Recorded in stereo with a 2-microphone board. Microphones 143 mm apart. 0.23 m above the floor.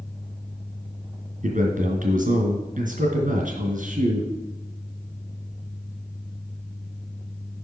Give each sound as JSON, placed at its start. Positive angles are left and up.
{"t": 1.4, "sound": "a man speaking", "side_deg": -65, "distance_m": 2.5}